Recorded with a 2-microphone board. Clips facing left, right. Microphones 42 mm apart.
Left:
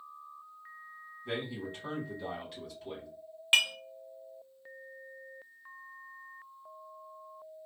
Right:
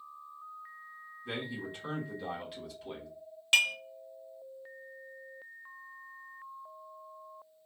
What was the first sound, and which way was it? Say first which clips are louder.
A man speaking: left 1 dB; centre (ahead or behind).